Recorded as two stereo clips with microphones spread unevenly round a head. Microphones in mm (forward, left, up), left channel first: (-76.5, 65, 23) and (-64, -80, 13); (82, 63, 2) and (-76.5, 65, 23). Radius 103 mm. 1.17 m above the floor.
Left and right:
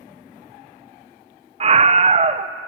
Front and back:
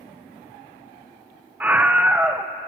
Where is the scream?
95° right, 0.7 m.